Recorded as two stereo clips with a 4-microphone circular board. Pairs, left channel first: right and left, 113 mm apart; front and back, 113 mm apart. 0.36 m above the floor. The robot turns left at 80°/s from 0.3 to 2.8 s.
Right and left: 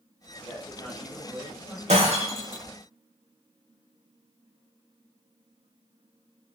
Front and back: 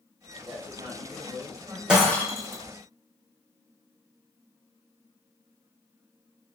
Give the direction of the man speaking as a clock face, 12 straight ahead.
4 o'clock.